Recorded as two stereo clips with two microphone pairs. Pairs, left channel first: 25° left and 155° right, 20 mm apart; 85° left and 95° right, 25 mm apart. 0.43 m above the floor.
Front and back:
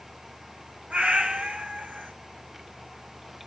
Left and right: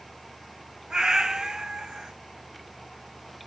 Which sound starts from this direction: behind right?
A cat meowing, at 0.9 s.